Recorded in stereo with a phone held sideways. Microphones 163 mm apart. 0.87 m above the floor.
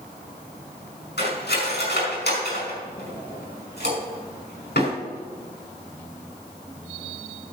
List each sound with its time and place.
1.2 s cutlery clinking: 90° left, 5 m